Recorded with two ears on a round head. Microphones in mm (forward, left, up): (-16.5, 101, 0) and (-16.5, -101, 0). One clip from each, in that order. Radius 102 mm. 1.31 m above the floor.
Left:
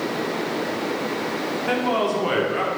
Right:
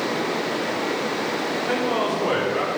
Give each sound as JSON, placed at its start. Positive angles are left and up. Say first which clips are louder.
{"t": 1.7, "sound": "a man speaking", "louder": "left 2 dB", "side_deg": 60, "distance_m": 4.0}